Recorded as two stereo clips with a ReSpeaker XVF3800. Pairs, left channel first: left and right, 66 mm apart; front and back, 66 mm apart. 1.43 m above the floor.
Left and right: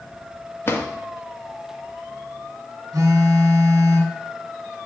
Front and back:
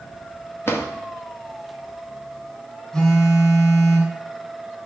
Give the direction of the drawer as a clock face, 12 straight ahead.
11 o'clock.